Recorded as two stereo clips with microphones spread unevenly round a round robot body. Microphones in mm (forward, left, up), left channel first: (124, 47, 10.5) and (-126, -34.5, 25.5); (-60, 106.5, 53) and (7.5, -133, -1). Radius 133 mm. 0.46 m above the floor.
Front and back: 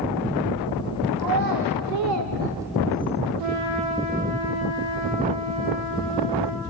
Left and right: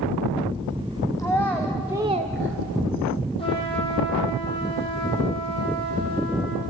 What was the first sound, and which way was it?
A child speaking, 175° right.